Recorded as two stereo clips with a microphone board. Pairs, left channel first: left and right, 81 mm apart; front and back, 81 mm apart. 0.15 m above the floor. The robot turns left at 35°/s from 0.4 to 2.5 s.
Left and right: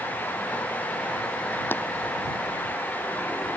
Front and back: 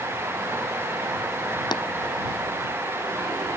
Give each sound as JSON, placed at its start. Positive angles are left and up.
{"t": 1.7, "sound": "tapping", "azimuth_deg": 25}